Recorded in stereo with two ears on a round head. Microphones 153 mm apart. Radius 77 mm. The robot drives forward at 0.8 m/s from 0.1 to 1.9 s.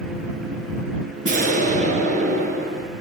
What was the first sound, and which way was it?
An explosion, 50° right (ahead or behind).